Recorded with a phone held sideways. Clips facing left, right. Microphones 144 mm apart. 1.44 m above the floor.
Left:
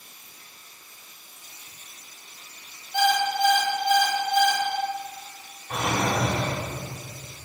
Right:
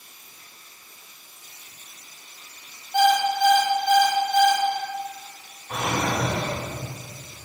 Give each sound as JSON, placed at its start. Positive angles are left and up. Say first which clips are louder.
{"t": 2.9, "sound": "an alarm clock", "louder": "right 3 dB", "side_deg": -50, "distance_m": 2.5}
{"t": 5.7, "sound": "a drawer", "louder": "even", "side_deg": -5, "distance_m": 2.5}